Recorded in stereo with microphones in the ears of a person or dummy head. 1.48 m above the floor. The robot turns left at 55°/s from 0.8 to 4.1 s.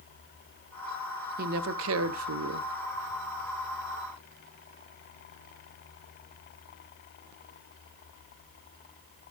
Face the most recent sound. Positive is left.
turn(degrees=165)